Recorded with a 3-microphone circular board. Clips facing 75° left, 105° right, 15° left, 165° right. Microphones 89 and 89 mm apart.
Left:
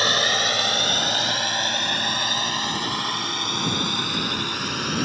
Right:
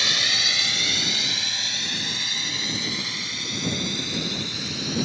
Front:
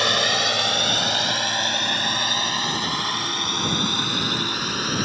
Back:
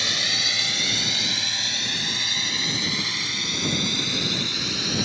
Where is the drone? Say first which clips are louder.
Left 7 dB, front 9 dB; 35° left; by 5.1 s 50° left.